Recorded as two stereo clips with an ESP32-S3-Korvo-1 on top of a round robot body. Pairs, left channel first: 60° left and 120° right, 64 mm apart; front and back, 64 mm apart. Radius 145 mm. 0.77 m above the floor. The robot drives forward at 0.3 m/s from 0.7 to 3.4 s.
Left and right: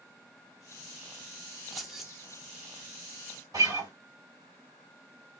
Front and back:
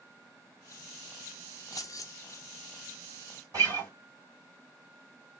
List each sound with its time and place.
1.7 s keys jangling: 30° right, 0.7 m; by 2.1 s 35° right, 0.6 m
3.5 s a guitar: 140° right, 2.5 m